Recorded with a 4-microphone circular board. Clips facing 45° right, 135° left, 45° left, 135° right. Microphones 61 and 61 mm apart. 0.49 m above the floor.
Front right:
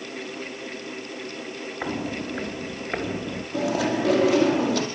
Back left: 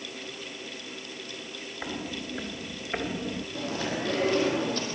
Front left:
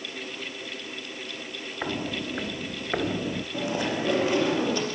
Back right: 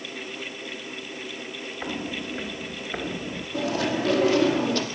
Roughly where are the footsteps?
Ahead.